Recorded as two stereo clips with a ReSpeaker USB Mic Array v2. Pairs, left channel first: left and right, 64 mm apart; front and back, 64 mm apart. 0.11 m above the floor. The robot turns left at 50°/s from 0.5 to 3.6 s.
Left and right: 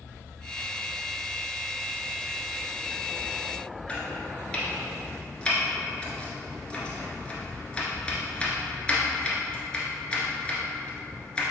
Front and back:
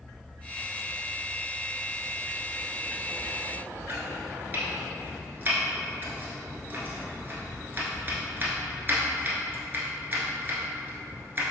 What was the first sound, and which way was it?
Chopping, 150° left.